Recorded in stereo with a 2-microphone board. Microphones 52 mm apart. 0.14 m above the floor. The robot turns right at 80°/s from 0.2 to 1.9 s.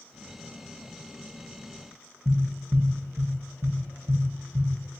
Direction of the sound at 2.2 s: 50° right (ahead or behind).